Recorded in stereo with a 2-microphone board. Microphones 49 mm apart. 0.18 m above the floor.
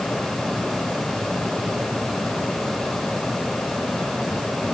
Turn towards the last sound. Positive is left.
No sound to turn to.